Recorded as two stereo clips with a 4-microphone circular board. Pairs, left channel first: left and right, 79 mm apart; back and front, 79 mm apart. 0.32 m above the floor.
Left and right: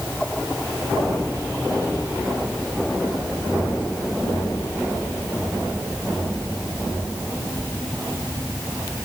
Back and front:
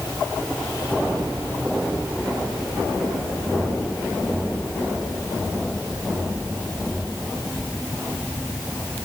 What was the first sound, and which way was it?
Only background noise.